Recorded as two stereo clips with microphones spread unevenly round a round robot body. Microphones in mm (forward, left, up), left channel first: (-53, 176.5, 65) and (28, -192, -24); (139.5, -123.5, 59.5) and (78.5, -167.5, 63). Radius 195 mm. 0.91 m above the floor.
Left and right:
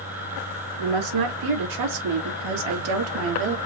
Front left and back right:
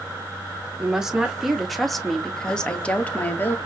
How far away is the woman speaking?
About 2.5 m.